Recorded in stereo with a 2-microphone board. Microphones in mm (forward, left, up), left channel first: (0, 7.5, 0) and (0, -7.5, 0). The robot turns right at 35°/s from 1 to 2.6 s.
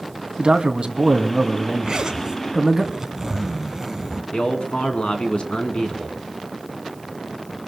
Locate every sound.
0.4 s a man speaking: 80° right, 2.5 m; by 2.8 s 20° right, 2.5 m
1.8 s a zipper: 50° right (ahead or behind), 1.4 m; by 4.2 s 25° right (ahead or behind), 1.4 m
4.3 s a man speaking: 70° left (ahead or behind), 3.5 m